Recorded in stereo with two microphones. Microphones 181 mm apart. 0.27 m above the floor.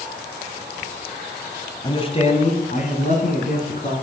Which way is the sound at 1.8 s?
25° left (ahead or behind).